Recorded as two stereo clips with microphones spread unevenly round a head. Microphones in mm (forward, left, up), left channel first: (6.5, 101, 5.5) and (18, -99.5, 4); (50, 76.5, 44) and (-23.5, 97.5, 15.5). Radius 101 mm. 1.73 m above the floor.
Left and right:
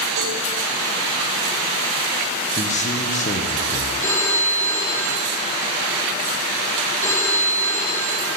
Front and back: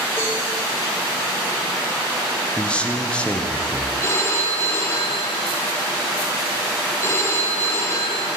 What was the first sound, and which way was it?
A cowbell, 95° right.